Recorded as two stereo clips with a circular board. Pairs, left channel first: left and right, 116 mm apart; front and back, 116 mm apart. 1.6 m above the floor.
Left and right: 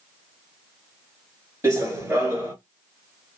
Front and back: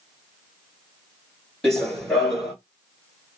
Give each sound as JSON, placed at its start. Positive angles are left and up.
{"t": 1.6, "sound": "running footsteps", "azimuth_deg": -75, "distance_m": 1.6}